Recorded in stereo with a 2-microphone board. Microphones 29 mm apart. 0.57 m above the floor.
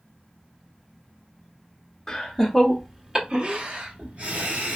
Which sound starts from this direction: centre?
Laughter, at 2.1 s.